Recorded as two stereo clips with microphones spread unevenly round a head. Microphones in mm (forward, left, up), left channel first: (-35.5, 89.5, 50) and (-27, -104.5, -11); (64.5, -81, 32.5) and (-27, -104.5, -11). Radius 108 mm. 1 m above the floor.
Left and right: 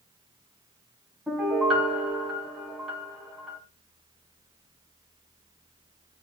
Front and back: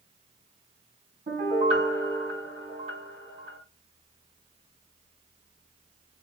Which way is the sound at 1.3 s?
Straight behind.